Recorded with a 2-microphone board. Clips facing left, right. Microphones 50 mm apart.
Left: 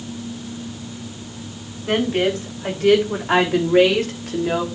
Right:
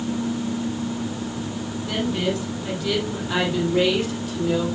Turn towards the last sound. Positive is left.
turn(degrees=75)  # may be behind; listen again after turning